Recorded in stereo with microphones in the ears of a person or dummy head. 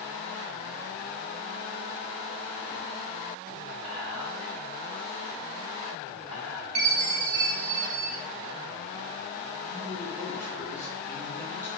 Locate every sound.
3.8 s whispering: centre (ahead or behind), 1.8 m
6.8 s a chime: 35° right (ahead or behind), 1.2 m
9.7 s a man speaking: 10° left (ahead or behind), 1.2 m